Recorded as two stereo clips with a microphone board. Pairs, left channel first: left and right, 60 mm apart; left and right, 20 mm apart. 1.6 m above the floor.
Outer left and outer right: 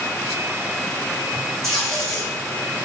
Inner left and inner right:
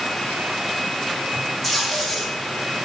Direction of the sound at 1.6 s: 5° left (ahead or behind).